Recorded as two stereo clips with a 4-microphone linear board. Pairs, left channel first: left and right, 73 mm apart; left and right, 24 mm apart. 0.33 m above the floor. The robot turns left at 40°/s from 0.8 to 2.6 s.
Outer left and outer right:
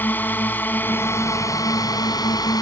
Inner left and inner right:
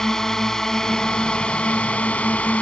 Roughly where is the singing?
No singing in this recording.